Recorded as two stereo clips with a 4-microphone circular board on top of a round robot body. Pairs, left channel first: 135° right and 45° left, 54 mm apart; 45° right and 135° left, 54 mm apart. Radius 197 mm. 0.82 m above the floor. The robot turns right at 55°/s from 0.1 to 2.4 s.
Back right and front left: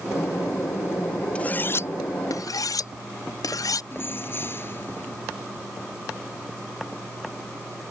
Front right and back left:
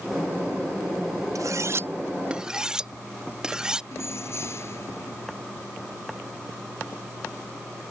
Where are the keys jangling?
85° right.